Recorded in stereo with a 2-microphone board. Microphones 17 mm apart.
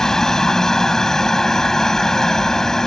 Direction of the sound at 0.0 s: 35° left (ahead or behind).